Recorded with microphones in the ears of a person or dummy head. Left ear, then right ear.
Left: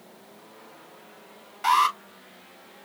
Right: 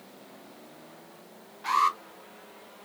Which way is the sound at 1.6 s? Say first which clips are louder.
Left 4 dB; 60° left (ahead or behind).